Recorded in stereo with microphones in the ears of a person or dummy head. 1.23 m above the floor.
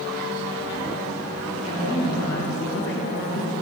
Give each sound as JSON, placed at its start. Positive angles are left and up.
{"t": 1.6, "sound": "a woman speaking", "side_deg": 45, "distance_m": 1.7}